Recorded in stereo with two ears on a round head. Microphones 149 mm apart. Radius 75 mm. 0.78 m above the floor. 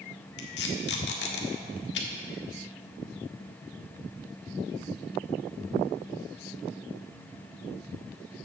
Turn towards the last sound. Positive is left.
turn(degrees=70)  # may be behind; listen again after turning